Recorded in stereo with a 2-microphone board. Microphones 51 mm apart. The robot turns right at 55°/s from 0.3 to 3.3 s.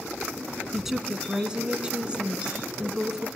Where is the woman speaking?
5° right (ahead or behind), 1.2 m; by 3.3 s 10° right (ahead or behind), 1.2 m.